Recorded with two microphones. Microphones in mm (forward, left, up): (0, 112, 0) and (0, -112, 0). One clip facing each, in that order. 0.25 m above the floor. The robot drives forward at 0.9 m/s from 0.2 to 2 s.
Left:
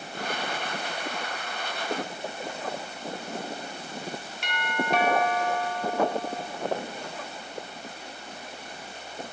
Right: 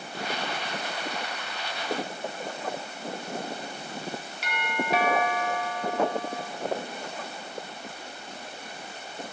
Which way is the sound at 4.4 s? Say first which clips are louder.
Left 1 dB; centre (ahead or behind).